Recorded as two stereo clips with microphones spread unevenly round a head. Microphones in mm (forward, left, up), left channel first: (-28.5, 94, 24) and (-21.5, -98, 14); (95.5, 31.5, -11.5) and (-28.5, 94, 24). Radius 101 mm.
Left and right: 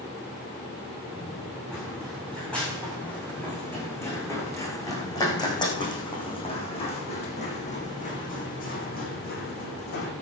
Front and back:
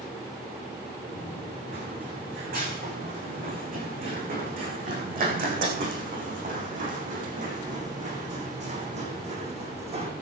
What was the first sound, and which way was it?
Running footsteps, straight behind.